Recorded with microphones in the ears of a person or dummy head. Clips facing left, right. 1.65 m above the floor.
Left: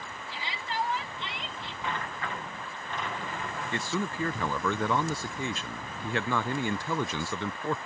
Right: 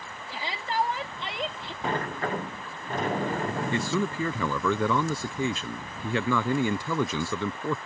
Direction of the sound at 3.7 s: 80° right.